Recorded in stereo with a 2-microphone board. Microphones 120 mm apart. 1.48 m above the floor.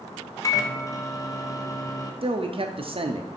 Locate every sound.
0.4 s a microwave: 30° left (ahead or behind), 0.7 m
2.2 s a man speaking: 50° right (ahead or behind), 0.5 m